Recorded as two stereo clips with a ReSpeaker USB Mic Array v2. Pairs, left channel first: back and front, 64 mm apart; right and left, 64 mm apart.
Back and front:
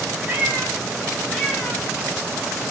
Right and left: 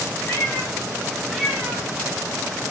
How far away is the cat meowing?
About 1.3 m.